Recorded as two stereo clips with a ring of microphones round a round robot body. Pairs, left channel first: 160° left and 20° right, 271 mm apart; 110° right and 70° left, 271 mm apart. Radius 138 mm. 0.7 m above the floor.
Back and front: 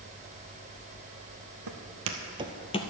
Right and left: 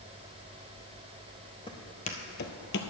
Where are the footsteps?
40° right, 1.5 m; by 2.8 s 145° right, 0.9 m.